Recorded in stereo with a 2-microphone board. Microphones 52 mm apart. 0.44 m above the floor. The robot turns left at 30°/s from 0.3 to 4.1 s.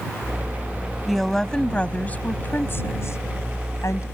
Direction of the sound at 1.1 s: Centre (ahead or behind).